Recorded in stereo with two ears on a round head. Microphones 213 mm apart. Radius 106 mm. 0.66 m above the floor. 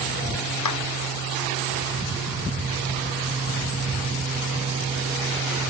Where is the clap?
85° left.